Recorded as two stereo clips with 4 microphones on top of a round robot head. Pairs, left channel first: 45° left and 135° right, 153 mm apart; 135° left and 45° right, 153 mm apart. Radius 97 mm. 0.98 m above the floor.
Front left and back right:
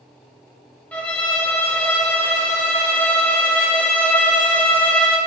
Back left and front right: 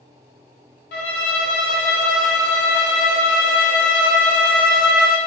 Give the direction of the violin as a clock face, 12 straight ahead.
8 o'clock.